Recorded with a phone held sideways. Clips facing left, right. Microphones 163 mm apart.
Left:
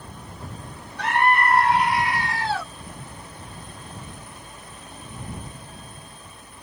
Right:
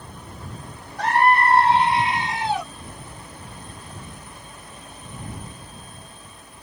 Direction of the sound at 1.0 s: 40° right (ahead or behind).